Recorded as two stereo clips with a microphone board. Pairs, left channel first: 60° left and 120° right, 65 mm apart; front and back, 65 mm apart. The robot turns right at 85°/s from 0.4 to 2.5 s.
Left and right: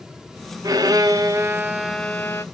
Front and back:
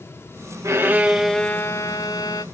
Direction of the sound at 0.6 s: 140° right.